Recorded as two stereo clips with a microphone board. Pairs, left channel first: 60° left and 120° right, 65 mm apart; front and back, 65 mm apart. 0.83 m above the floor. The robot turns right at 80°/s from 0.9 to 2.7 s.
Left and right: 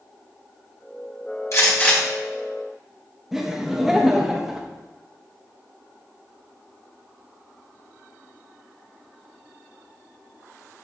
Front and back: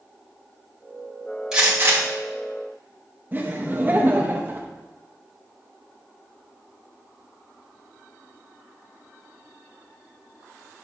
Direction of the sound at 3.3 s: 165° left.